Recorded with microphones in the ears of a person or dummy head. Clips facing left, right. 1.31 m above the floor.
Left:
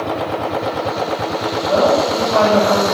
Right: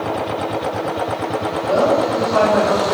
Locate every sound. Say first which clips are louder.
1.7 s a woman speaking: left 1 dB; 25° right (ahead or behind), 1.4 m